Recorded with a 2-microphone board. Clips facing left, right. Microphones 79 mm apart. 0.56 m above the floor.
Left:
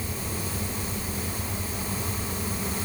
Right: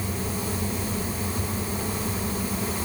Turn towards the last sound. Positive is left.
No sound to turn to.